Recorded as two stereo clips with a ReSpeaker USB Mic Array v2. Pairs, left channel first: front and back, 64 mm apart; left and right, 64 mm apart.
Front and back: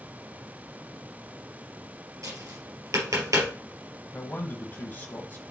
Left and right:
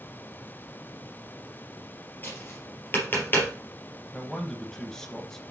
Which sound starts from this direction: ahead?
A man speaking, at 4.1 s.